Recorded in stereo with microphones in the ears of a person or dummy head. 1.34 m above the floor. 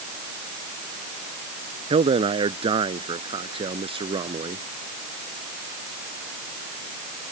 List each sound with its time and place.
1.9 s a man speaking: 35° right (ahead or behind); by 4.6 s 30° right (ahead or behind)